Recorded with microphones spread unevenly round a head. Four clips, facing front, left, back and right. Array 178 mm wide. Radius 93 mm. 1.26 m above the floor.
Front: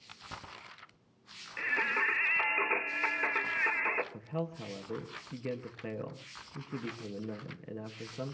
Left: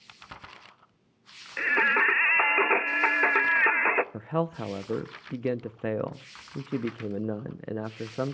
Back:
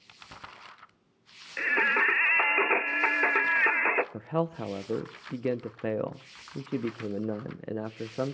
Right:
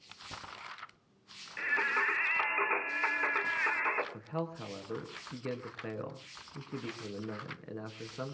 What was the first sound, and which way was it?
Singing, 140° left.